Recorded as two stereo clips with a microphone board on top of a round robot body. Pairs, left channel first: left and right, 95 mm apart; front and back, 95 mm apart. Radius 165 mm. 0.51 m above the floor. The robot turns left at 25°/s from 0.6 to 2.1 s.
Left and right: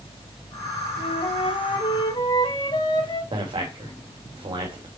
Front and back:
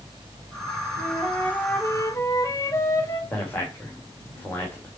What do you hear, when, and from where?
1.0 s a flute: 85° left, 4 m; by 3.2 s 55° left, 4 m
3.3 s a man speaking: 65° right, 3 m